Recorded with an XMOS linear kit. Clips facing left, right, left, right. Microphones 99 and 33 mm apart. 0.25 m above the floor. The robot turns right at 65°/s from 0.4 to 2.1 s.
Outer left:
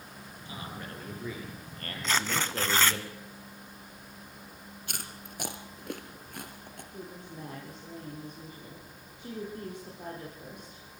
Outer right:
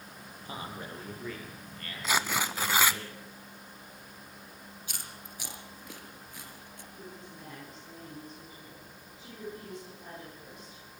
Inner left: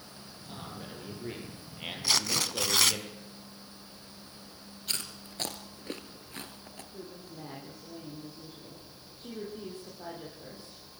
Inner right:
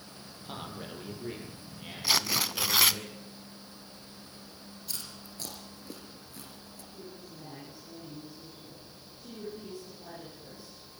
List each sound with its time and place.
0.5 s a man speaking: 45° right, 6.5 m; by 3.0 s 65° left, 6.5 m
2.0 s tearing paper: 5° right (ahead or behind), 0.7 m; by 3.0 s 10° right (ahead or behind), 0.7 m
4.9 s chewing: 60° left (ahead or behind), 2.0 m
6.9 s a woman speaking: 55° left (ahead or behind), 10 m